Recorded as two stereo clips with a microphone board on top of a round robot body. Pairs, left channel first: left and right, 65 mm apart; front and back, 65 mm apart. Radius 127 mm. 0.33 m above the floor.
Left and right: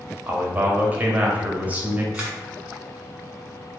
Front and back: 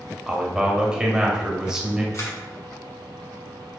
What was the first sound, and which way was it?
A man speaking, 115° right.